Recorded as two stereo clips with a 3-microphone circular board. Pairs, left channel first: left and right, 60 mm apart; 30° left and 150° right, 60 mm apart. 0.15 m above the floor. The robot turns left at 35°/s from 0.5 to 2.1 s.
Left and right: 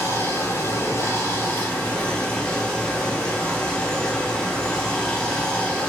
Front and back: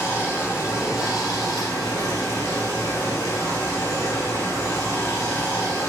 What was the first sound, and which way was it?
Running water, 75° left.